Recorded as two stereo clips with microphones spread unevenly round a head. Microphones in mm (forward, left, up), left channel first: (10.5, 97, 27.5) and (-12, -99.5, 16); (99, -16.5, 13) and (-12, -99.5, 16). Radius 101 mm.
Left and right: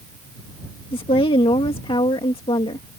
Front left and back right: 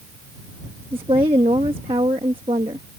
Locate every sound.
0.9 s a woman speaking: 150° left